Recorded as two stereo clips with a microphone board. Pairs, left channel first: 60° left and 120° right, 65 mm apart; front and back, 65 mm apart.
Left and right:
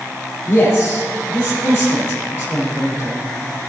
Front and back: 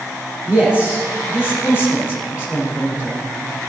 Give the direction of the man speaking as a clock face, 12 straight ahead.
8 o'clock.